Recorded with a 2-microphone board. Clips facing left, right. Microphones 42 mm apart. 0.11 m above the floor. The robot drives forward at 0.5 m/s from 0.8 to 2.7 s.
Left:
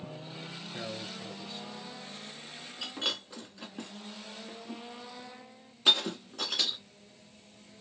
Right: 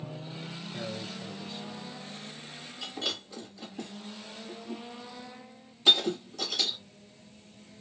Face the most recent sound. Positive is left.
turn(degrees=25)  # may be behind; listen again after turning